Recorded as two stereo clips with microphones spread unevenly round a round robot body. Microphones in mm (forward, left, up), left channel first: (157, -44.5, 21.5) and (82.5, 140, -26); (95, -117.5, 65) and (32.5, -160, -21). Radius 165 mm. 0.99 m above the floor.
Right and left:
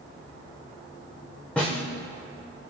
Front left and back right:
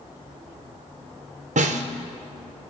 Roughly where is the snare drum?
Behind right.